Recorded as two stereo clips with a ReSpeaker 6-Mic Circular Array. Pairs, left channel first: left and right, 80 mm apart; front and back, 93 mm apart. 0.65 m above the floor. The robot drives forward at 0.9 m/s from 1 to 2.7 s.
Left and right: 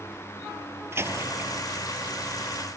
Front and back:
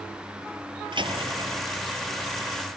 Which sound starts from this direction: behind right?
A door slam, at 0.9 s.